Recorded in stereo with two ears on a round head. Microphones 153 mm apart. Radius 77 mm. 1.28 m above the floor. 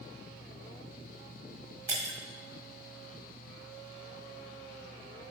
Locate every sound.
1.9 s breaking glass: 20° right (ahead or behind), 1.2 m